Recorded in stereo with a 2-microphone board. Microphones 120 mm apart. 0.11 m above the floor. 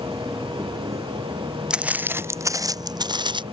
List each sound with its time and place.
0.0 s an insect: 25° right (ahead or behind)
1.7 s footsteps: 5° right (ahead or behind); by 3.4 s 40° right (ahead or behind)